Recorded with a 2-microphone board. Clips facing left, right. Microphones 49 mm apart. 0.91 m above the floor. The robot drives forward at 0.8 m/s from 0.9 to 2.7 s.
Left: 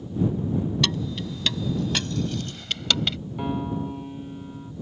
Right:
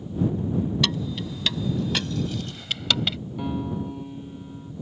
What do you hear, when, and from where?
0.8 s keys jangling: 5° right (ahead or behind)
3.4 s a piano: 15° left (ahead or behind)